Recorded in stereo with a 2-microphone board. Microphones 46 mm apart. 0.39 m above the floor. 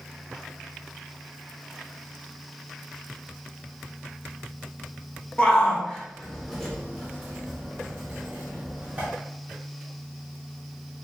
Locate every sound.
5.4 s a shout: 25° left (ahead or behind), 1.2 m; by 9.1 s 30° right (ahead or behind), 1.7 m